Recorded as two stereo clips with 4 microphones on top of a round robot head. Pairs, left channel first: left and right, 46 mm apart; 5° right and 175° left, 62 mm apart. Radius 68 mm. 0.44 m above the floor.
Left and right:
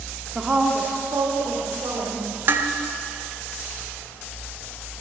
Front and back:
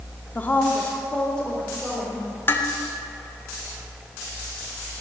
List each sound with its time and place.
0.3 s a woman speaking: 5° right, 0.8 m; by 2.4 s 85° right, 2.5 m
2.5 s dishes clattering: 55° right, 0.9 m